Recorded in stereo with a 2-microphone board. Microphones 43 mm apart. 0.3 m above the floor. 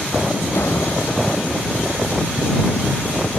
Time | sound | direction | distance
0.5 | a door slam | 70° left (ahead or behind) | ?